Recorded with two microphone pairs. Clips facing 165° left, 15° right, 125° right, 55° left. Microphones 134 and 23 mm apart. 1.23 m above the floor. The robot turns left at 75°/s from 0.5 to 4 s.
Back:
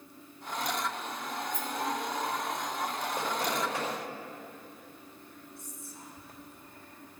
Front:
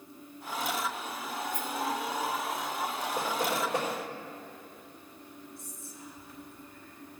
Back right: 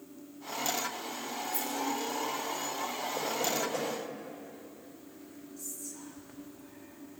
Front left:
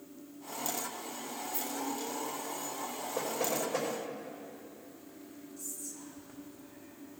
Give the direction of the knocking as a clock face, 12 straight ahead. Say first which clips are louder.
Front 2 dB, back right 1 dB; 11 o'clock.